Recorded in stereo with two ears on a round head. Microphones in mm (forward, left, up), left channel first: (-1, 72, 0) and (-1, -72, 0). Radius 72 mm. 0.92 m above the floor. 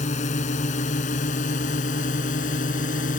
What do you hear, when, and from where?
0.0 s a drone: 50° left (ahead or behind); by 3.2 s 55° left (ahead or behind)